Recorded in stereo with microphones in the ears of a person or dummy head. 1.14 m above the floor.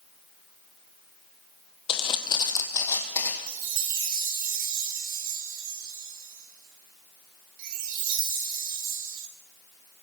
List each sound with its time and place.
1.9 s footsteps: 35° left (ahead or behind), 1.7 m; by 3.4 s 15° left (ahead or behind), 3 m
3.5 s a chime: 45° right (ahead or behind), 2.5 m